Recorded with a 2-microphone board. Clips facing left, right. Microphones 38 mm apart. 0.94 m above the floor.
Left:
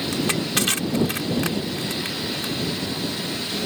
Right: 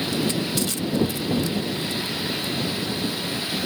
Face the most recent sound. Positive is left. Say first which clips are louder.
# left 2 dB
turn(degrees=65)  # may be behind; listen again after turning